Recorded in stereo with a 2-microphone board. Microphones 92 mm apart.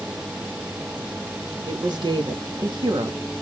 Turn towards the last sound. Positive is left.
turn(degrees=-55)  # may be behind; listen again after turning